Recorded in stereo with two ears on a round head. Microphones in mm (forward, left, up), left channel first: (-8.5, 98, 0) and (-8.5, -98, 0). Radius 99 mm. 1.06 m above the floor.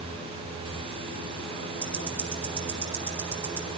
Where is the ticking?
5° right (ahead or behind), 2.0 m.